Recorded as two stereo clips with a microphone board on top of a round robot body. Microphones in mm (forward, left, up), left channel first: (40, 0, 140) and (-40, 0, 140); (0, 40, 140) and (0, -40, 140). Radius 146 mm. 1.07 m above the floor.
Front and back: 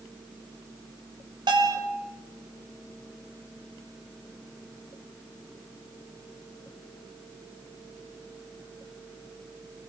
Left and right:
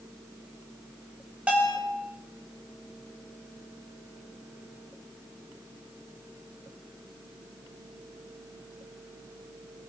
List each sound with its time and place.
1.5 s a bell: 165° right, 8 m